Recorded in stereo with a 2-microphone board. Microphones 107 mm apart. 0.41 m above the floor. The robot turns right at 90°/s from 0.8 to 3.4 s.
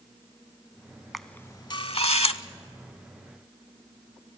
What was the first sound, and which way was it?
A camera shutter, centre (ahead or behind).